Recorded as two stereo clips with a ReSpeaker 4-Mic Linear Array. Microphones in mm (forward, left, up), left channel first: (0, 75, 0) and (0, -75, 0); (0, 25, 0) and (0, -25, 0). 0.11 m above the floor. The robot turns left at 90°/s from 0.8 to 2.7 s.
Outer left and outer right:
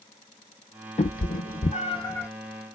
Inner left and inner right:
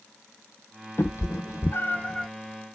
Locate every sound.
1.0 s a cat meowing: 50° left (ahead or behind), 0.6 m; by 2.3 s 10° left (ahead or behind), 0.6 m